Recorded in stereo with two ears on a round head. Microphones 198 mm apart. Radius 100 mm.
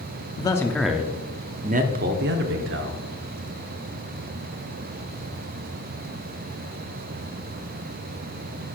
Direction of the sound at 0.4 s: 20° left (ahead or behind).